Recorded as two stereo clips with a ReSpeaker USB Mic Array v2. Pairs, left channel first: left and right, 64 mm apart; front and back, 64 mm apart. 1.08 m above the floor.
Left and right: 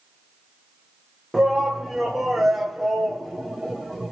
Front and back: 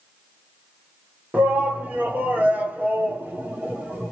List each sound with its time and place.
1.3 s a shout: 175° right, 0.7 m